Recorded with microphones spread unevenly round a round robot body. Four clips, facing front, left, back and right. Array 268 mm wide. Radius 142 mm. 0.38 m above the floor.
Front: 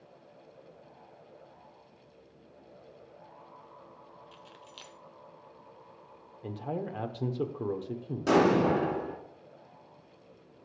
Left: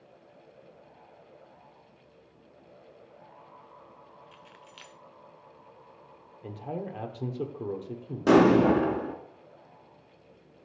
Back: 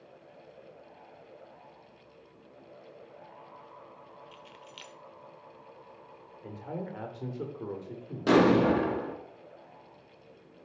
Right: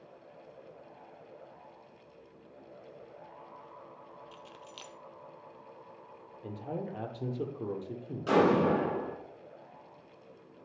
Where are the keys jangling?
85° right, 0.8 m.